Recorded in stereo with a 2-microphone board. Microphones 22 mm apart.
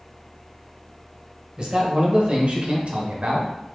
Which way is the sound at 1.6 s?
35° right (ahead or behind).